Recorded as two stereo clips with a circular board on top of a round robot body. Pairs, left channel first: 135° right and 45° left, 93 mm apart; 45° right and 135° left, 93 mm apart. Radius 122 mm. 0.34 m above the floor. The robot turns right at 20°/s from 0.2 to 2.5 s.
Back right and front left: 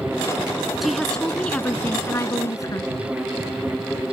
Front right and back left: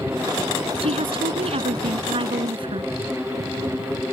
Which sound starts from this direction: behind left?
A woman speaking, at 0.8 s.